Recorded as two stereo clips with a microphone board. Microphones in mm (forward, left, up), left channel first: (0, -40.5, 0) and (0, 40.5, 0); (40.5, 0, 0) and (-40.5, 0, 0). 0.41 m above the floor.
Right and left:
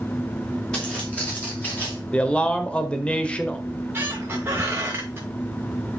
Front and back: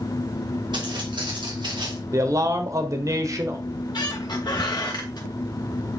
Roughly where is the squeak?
Ahead left.